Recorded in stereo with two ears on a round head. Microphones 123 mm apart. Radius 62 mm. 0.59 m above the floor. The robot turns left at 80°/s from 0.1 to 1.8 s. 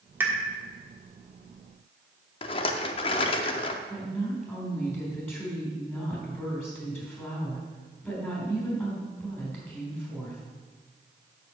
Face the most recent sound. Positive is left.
turn(degrees=15)  # may be behind; listen again after turning